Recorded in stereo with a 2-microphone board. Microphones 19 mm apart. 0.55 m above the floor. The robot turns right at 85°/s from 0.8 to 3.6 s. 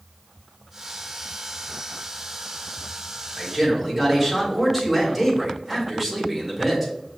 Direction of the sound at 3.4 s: 25° right (ahead or behind).